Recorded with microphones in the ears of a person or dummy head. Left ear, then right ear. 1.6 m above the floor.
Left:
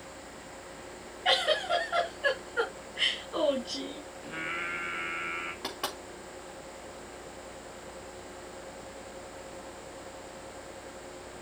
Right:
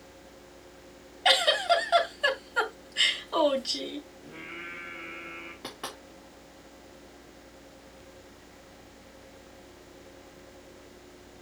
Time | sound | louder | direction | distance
1.2 | a giggle | right 4 dB | 55° right (ahead or behind) | 3.5 m
4.2 | singing | left 10 dB | 75° left (ahead or behind) | 4 m
5.6 | knocking | left 4 dB | 15° left (ahead or behind) | 3.5 m